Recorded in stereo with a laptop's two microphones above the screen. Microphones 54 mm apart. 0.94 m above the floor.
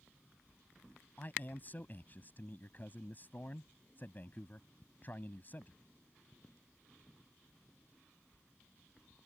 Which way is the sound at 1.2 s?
35° left (ahead or behind).